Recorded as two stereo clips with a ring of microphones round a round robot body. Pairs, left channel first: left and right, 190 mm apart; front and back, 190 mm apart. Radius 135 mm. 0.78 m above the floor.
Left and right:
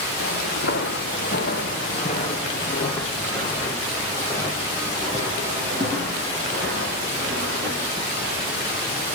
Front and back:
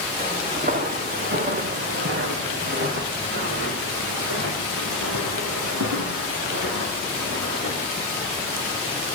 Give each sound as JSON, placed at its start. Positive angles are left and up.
{"t": 0.2, "sound": "footsteps", "azimuth_deg": 135, "distance_m": 3.0}